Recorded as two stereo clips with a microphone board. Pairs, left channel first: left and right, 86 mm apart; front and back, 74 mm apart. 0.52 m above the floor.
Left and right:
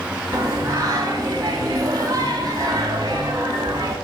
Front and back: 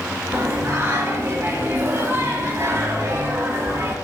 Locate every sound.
0.3 s singing: 125° right, 0.6 m